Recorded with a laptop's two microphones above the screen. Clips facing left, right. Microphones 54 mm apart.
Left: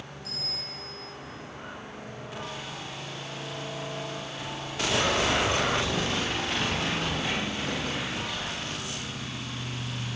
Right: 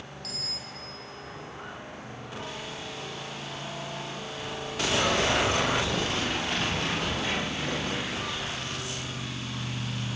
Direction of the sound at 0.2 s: 75° right (ahead or behind).